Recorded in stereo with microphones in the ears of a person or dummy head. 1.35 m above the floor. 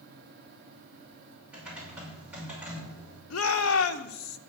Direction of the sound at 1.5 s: 5° right (ahead or behind).